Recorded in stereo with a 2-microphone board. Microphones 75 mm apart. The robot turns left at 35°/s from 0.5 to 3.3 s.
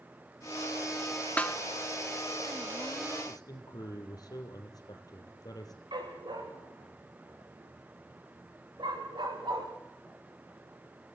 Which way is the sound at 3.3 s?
60° left (ahead or behind).